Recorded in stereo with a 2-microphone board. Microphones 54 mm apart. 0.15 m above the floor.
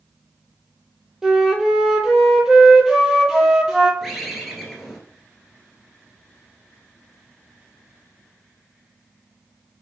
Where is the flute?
15° right (ahead or behind), 0.6 m.